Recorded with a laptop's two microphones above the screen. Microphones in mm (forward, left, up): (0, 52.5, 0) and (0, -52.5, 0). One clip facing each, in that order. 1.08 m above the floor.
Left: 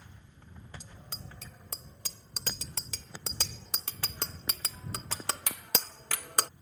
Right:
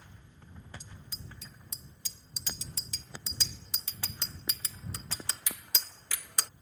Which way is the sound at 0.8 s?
75° left (ahead or behind).